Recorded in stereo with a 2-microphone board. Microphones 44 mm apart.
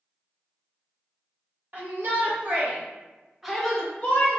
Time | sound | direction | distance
1.7 | a shout | 50° right (ahead or behind) | 1.4 m